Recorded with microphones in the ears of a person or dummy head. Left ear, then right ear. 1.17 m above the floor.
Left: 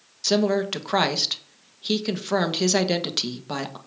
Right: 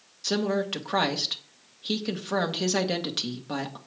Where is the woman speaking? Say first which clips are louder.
Left 5 dB; 15° left (ahead or behind), 1.3 m.